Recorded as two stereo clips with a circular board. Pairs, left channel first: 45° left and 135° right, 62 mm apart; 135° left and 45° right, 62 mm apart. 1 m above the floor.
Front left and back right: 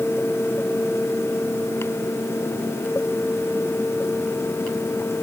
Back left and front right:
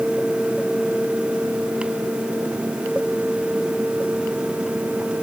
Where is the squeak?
No squeak in this recording.